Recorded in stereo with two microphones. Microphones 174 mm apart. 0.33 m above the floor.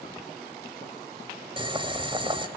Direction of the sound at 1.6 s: 30° right (ahead or behind).